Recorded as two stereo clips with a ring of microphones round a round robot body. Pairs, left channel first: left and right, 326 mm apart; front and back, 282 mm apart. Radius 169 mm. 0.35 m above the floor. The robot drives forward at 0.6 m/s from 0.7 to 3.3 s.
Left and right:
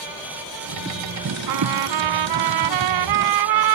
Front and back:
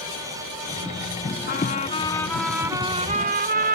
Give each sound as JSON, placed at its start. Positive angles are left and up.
{"t": 1.5, "sound": "a trumpet", "azimuth_deg": -60}